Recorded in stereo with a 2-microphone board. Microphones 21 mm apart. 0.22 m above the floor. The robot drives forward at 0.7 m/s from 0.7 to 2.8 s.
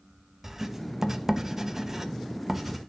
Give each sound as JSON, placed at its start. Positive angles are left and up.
{"t": 0.4, "sound": "writing", "side_deg": -15, "distance_m": 0.8}